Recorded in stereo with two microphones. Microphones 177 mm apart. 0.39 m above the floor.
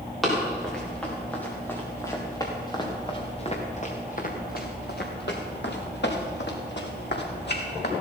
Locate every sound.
0.2 s running footsteps: centre (ahead or behind), 5 m; by 7.9 s 65° left (ahead or behind), 4.5 m